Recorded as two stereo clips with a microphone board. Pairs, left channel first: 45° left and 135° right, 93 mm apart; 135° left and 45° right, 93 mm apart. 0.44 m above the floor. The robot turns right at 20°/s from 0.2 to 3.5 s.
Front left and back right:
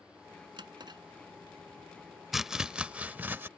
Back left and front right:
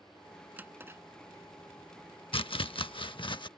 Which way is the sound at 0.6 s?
115° right.